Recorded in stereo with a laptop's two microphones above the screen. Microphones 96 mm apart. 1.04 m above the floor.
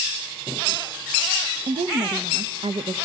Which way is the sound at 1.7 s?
70° right (ahead or behind).